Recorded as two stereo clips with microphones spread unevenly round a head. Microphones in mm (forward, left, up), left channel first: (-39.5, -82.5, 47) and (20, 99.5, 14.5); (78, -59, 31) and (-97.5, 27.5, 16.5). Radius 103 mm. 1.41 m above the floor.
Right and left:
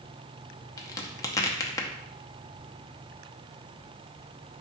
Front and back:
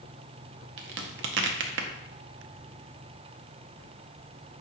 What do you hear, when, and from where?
0.8 s a crack: 175° left, 0.6 m